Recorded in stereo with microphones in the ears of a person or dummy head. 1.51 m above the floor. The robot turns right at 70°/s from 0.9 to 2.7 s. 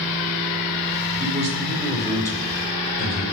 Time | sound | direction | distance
1.2 | a man speaking | 60° right | 4.5 m